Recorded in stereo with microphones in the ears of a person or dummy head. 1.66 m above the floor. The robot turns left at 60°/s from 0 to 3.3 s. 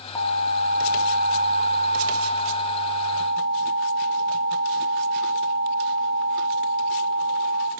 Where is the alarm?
155° left, 1.1 m; by 7.7 s 35° right, 1.1 m.